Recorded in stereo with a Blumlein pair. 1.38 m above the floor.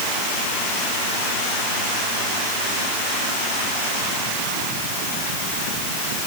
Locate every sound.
Only background noise.